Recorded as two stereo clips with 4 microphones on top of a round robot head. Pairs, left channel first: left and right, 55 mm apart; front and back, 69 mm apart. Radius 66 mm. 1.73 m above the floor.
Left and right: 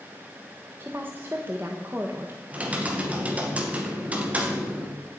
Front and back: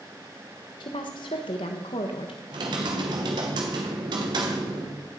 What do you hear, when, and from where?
0.8 s a woman speaking: 25° right, 1.4 m
2.5 s typing on a keyboard: 155° right, 2 m